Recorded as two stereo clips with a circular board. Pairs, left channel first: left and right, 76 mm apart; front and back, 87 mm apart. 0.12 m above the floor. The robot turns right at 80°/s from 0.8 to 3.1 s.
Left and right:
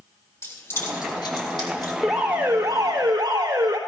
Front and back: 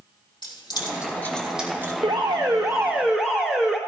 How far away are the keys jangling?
About 3.5 m.